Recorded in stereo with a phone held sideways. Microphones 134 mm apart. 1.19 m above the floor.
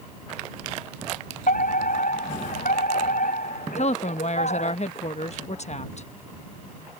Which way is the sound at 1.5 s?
85° left.